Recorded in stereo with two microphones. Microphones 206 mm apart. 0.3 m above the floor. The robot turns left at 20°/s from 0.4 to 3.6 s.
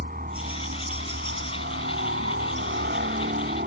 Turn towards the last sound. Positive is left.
turn(degrees=-120)